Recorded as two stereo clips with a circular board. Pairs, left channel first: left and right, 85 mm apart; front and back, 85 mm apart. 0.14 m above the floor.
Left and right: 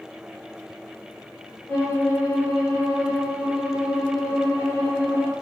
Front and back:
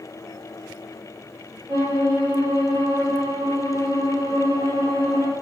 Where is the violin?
155° left, 1.6 m.